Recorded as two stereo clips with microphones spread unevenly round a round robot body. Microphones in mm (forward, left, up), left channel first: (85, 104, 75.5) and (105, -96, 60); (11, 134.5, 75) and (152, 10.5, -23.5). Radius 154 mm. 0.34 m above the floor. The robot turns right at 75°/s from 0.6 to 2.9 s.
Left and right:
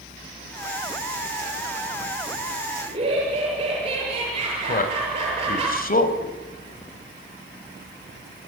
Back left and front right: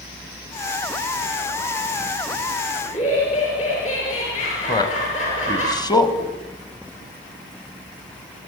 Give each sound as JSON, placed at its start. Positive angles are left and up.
{"t": 2.9, "sound": "laughter", "azimuth_deg": -155, "distance_m": 7.0}
{"t": 4.7, "sound": "a man speaking", "azimuth_deg": 55, "distance_m": 2.5}